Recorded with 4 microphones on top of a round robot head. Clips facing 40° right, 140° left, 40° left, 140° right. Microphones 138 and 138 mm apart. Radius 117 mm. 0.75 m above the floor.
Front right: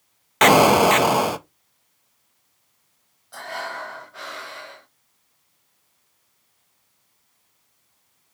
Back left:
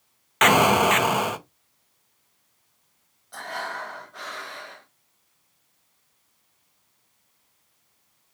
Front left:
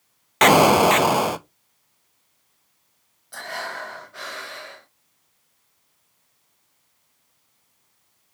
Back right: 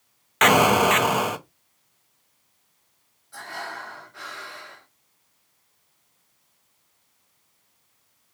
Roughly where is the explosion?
Ahead.